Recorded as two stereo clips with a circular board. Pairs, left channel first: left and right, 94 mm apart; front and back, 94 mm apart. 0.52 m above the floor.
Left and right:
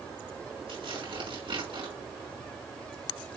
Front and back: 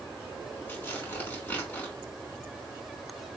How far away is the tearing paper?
About 5.5 m.